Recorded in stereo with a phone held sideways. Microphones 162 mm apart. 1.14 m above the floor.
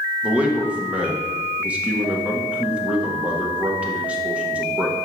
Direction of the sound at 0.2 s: 10° right (ahead or behind).